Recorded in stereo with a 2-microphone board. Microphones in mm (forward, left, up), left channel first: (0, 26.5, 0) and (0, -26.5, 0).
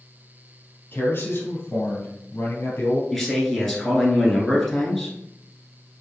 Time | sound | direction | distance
0.9 | a man speaking | 45° left (ahead or behind) | 1.9 m
3.1 | a man speaking | 5° left (ahead or behind) | 1.2 m